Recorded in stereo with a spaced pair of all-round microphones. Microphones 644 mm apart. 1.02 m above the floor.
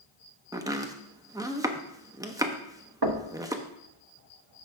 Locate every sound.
0.5 s chopping: 5° right (ahead or behind), 0.6 m
3.0 s knocking: 40° right (ahead or behind), 0.8 m